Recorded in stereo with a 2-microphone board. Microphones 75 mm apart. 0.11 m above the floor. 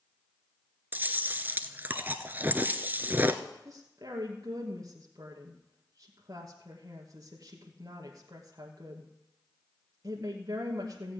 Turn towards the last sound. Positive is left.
turn(degrees=-50)  # may be behind; listen again after turning